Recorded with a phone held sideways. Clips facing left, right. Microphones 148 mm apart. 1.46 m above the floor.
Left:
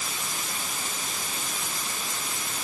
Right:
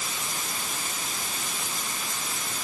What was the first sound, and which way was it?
Only background noise.